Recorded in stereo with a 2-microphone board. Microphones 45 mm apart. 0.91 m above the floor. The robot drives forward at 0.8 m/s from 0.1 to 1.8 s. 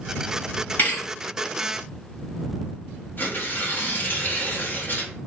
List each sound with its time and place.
0.8 s a thud: 45° left (ahead or behind), 2 m; by 1.1 s 50° left (ahead or behind), 2 m
3.2 s tearing paper: 45° left (ahead or behind), 1.0 m